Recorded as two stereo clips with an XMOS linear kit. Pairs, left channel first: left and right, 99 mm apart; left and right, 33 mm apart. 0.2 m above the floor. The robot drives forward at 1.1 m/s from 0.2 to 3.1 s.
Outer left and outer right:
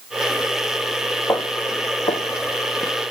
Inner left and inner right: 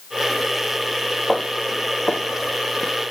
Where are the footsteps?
35° left (ahead or behind), 2 m; by 2.9 s 30° left (ahead or behind), 1.9 m.